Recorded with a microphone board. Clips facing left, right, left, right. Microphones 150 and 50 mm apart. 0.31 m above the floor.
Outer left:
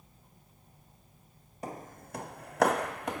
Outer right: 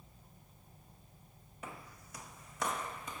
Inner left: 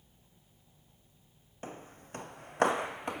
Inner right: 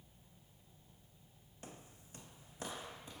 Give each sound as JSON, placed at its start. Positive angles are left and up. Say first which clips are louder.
{"t": 1.6, "sound": "footsteps", "louder": "outer left 8 dB, inner left 10 dB", "side_deg": 40, "distance_m": 0.7}